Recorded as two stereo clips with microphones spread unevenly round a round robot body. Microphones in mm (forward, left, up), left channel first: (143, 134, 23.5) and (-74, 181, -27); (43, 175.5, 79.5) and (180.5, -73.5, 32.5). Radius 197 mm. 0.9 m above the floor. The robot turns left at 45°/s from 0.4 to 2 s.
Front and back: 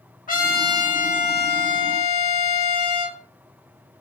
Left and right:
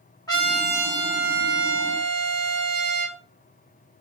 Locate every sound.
0.3 s a trumpet: 40° left, 3 m; by 3.2 s 30° right, 3 m